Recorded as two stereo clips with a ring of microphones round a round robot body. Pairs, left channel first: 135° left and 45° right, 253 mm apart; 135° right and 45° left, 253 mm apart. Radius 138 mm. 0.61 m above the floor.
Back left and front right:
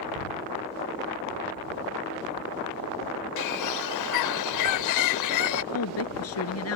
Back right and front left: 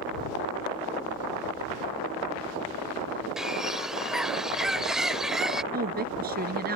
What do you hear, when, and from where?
3.4 s a bird: 135° left
5.7 s a woman speaking: 100° left